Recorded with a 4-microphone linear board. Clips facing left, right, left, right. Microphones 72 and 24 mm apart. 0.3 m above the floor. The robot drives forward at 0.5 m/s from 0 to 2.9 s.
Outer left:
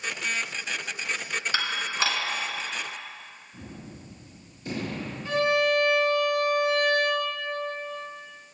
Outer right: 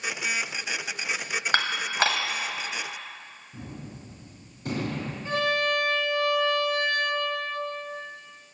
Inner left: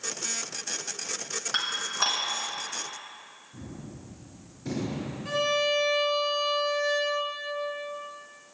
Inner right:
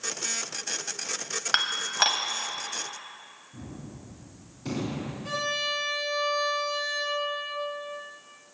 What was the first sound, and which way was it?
Dishes clattering, 50° right (ahead or behind).